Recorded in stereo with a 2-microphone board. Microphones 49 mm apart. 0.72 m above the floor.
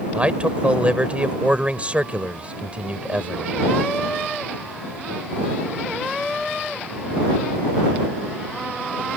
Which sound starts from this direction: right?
A man speaking, at 0.1 s.